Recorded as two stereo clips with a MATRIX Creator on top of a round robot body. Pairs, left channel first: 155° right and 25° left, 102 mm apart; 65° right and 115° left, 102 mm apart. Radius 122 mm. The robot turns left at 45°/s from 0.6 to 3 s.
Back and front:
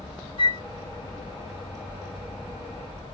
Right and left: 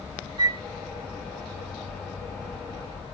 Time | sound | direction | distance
0.4 | a flute | 160° left | 1.1 m